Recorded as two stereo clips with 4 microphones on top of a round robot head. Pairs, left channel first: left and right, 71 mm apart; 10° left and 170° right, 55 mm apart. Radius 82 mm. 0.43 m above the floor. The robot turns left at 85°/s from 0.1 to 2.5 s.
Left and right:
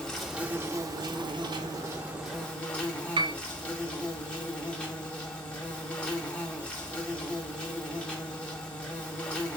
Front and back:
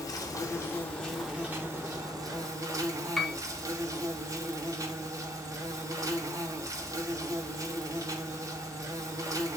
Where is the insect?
10° left, 1.9 m; by 9.6 s 165° left, 1.9 m.